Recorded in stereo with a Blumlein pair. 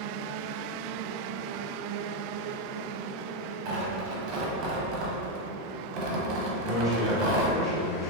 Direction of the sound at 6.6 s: 30° left.